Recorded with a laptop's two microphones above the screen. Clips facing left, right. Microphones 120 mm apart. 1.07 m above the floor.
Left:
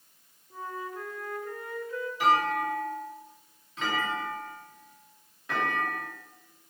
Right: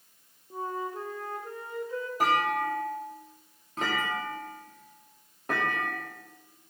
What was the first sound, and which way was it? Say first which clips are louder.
A flute: right 4 dB; 30° right (ahead or behind).